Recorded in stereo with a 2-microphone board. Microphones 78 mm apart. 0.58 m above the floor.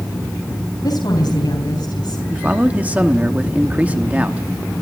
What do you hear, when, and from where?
0.8 s a woman speaking: 70° left (ahead or behind), 3.5 m
2.3 s a man speaking: 20° right (ahead or behind), 1.1 m